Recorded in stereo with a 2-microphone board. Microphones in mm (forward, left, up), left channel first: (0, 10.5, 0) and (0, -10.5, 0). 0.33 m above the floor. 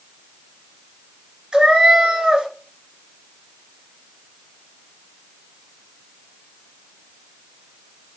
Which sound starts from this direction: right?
A cat meowing, at 1.5 s.